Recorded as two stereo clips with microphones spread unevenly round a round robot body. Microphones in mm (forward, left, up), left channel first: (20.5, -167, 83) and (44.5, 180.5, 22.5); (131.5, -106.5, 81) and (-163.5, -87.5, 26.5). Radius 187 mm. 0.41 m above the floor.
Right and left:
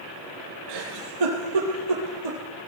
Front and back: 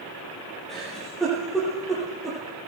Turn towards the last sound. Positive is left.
turn(degrees=85)